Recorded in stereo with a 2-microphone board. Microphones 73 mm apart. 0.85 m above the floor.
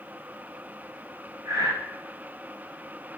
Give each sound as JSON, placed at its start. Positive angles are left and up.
{"t": 1.4, "sound": "breathing", "side_deg": -70, "distance_m": 1.4}